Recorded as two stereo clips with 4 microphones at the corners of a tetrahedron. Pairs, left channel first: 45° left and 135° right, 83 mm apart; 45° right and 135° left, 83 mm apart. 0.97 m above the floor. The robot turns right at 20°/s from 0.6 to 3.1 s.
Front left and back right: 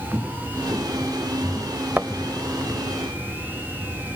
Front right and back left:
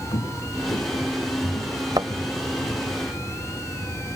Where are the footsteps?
60° right; by 3.0 s 10° right.